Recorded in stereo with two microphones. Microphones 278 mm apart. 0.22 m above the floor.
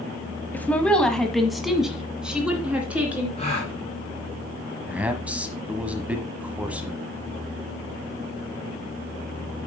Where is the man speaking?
5° right (ahead or behind), 1.2 m.